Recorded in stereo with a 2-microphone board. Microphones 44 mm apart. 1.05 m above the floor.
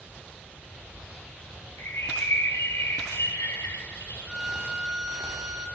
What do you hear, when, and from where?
1.8 s a bird: 85° left, 2.5 m
4.2 s a violin: 20° right (ahead or behind), 2 m